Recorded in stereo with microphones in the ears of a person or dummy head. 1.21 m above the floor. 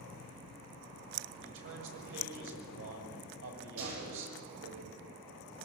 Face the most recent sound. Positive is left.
turn(degrees=-80)